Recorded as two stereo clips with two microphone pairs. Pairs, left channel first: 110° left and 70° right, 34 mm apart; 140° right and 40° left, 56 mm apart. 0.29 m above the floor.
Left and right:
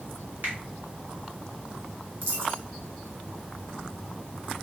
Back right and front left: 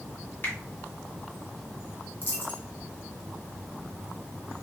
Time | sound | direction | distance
0.4 | a finger snap | 95° right | 2 m
2.2 | a dropped coin | 90° right | 1.2 m